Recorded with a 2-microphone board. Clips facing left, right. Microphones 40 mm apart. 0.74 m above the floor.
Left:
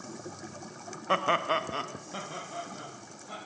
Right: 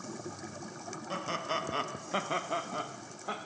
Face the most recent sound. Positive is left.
turn(degrees=-60)  # may be behind; listen again after turning